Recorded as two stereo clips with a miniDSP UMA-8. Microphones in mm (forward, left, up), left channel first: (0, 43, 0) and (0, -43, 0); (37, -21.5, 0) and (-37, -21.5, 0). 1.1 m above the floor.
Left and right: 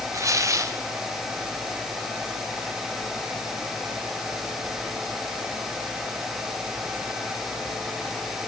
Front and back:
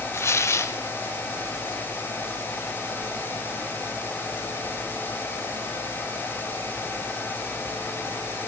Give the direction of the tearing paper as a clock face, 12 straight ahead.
2 o'clock.